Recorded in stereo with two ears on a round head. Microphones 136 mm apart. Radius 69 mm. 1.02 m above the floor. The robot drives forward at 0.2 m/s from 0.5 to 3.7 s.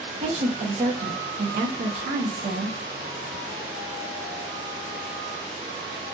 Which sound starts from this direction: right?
A woman speaking, at 0.2 s.